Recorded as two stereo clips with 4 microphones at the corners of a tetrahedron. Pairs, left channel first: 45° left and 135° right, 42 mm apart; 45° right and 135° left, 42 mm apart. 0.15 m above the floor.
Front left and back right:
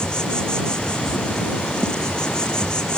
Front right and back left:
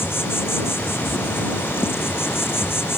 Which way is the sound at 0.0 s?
25° right.